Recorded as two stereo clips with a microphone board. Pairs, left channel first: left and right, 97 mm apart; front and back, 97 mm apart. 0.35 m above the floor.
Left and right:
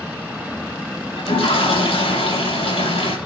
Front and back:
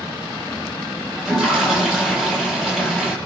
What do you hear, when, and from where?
1.2 s a toilet flushing: 100° left, 8 m